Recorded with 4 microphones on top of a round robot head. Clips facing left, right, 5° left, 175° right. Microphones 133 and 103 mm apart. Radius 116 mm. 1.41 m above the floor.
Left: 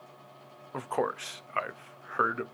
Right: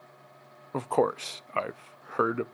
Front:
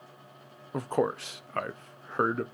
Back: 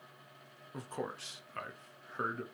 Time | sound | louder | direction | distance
0.7 | a man speaking | right 5 dB, front 13 dB | 30° right | 0.6 m